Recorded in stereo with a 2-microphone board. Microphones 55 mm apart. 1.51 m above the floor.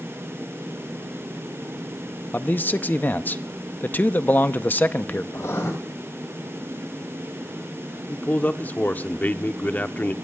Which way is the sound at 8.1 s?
35° left (ahead or behind).